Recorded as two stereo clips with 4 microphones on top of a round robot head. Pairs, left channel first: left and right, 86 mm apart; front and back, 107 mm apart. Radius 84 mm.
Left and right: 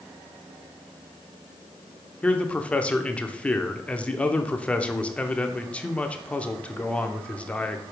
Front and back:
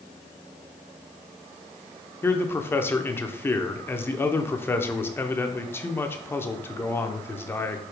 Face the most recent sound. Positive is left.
turn(degrees=35)